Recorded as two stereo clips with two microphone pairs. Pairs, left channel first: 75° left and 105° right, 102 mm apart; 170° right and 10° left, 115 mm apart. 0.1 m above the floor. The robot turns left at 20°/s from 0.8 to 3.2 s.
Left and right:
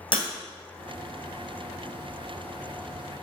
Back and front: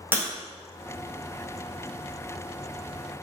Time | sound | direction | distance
0.1 | breaking glass | 85° left | 1.4 m